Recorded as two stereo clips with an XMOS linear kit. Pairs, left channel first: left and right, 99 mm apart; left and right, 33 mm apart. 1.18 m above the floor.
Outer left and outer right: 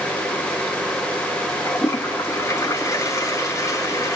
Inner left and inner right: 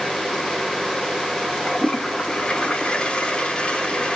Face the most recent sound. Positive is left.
turn(degrees=30)  # may be behind; listen again after turning